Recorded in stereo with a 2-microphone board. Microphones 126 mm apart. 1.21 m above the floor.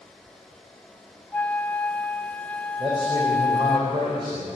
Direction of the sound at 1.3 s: 10° left (ahead or behind).